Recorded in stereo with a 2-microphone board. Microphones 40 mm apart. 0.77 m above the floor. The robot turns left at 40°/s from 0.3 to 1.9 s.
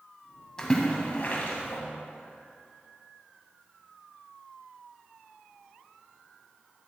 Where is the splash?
15° left (ahead or behind), 1.8 m; by 1.8 s 65° left (ahead or behind), 1.8 m.